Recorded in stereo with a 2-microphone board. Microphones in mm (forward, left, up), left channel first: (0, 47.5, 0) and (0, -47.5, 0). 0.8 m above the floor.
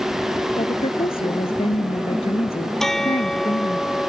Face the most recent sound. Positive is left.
turn(degrees=5)  # may be behind; listen again after turning